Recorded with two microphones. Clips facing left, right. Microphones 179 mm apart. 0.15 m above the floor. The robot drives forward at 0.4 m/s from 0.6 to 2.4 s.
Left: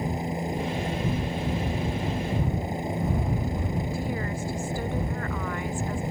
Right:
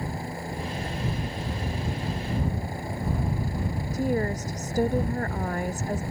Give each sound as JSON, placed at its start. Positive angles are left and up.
{"t": 0.0, "sound": "a helicopter", "side_deg": 20}
{"t": 3.9, "sound": "a woman speaking", "side_deg": -40}